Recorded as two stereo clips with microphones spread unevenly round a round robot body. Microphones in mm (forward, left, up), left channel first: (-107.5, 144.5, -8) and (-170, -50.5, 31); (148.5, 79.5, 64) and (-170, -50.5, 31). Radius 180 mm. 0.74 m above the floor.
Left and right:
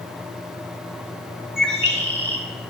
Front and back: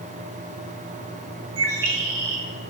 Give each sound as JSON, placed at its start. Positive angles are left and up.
{"t": 1.6, "sound": "a bird", "azimuth_deg": -145, "distance_m": 1.4}